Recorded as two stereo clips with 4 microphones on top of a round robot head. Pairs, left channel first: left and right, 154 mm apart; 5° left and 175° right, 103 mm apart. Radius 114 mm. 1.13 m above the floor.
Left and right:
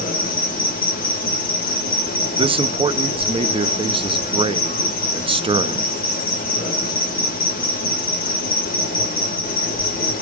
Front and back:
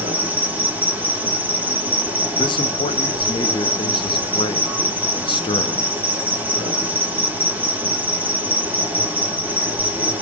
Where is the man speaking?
35° right, 0.5 m.